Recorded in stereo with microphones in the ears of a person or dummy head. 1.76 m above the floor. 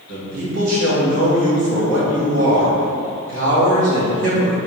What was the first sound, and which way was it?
A man speaking, 80° right.